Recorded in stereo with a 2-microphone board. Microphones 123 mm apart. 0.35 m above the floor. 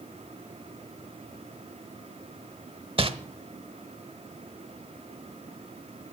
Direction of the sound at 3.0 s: 50° right (ahead or behind).